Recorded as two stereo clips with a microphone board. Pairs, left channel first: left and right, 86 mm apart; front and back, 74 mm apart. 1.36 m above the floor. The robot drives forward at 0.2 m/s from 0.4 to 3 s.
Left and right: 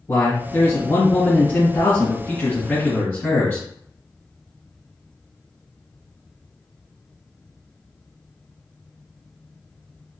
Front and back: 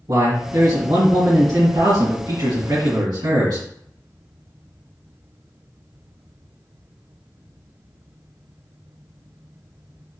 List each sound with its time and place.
0.1 s a man speaking: 145° left, 1.6 m; by 3.7 s 155° left, 2 m